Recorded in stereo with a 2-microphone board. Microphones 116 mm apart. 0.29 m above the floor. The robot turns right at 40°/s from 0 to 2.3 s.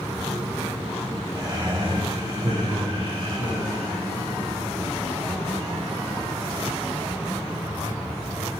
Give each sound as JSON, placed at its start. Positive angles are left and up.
{"t": 1.4, "sound": "laughter", "azimuth_deg": -130, "distance_m": 1.7}